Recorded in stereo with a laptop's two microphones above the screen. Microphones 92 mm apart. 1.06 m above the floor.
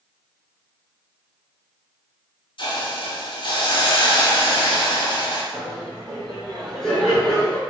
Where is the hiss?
60° left (ahead or behind), 0.6 m.